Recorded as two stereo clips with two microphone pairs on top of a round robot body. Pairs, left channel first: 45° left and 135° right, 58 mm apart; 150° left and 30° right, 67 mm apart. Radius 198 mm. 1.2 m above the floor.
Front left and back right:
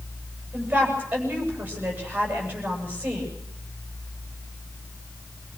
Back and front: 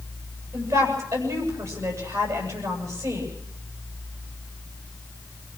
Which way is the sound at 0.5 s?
70° right.